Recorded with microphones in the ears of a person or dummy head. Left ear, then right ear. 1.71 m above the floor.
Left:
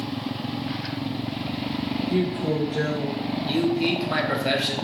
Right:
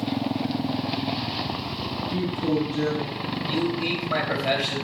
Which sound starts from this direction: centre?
A man speaking, at 3.5 s.